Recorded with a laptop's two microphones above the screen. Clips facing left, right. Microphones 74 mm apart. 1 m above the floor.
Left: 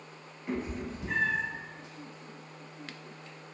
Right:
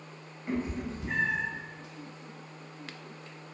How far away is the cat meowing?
About 0.8 m.